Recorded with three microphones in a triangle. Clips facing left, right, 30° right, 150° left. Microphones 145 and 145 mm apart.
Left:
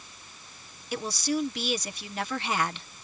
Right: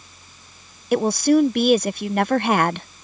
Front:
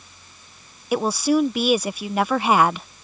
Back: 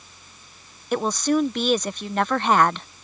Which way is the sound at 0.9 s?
110° right.